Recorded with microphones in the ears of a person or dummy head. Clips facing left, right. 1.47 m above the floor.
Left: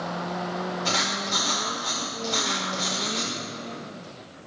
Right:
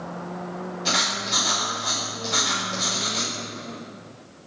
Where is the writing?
5° right (ahead or behind), 4.5 m.